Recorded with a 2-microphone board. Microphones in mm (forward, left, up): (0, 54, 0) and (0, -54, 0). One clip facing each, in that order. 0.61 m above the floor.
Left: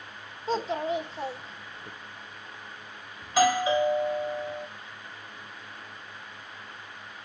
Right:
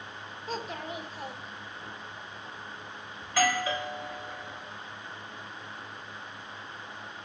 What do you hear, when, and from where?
0.5 s a child speaking: 30° left (ahead or behind), 1.5 m
3.2 s a doorbell: 20° left (ahead or behind), 1.3 m